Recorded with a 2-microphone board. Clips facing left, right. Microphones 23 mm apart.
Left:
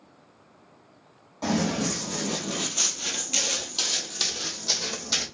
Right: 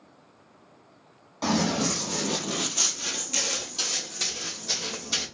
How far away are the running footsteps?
About 1.2 m.